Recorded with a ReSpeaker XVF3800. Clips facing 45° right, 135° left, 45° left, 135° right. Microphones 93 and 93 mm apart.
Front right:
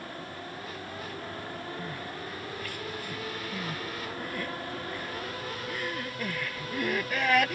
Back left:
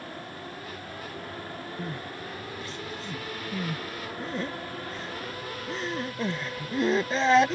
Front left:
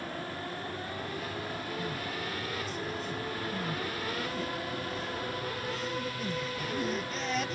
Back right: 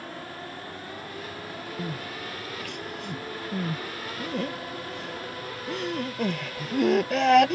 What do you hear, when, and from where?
1.8 s crying: 160° right